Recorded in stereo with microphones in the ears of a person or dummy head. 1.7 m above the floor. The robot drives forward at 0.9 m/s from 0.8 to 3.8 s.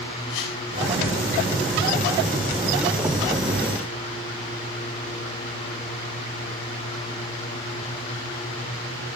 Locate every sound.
0.3 s a whoosh: 60° left (ahead or behind), 6.5 m